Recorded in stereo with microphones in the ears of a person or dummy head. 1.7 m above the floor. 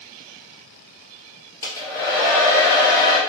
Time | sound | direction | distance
1.6 | a hair dryer | 20° left (ahead or behind) | 1.2 m